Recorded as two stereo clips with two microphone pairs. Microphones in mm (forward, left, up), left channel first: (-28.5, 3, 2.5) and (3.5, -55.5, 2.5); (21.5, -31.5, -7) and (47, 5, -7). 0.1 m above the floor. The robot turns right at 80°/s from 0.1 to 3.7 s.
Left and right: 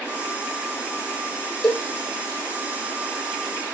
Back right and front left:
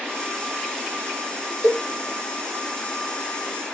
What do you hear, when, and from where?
1.6 s a cowbell: 155° right, 4.5 m; by 1.9 s 140° right, 4.5 m